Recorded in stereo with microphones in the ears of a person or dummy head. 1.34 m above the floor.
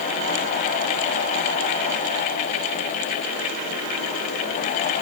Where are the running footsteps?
No running footsteps in this recording.